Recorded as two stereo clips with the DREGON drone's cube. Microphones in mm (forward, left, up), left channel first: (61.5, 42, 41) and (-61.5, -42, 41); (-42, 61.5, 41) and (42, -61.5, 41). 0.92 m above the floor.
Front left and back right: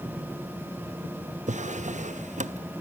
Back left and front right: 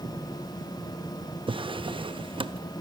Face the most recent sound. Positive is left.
turn(degrees=-110)